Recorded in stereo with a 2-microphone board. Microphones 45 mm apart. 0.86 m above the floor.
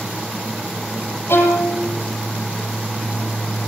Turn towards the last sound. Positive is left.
turn(degrees=65)  # may be behind; listen again after turning